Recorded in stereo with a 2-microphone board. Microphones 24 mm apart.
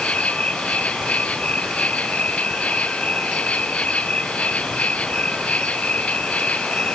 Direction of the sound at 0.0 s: 65° left (ahead or behind).